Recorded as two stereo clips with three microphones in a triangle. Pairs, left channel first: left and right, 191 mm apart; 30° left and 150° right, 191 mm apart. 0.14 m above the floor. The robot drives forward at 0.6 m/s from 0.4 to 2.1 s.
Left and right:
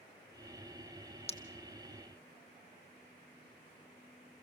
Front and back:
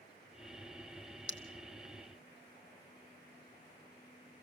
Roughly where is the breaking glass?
Ahead left.